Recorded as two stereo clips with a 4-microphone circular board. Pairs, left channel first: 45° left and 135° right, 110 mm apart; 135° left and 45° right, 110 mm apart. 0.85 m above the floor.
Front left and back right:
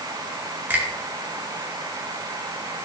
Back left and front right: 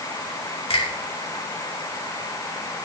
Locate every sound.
0.7 s a finger snap: 155° left, 2.5 m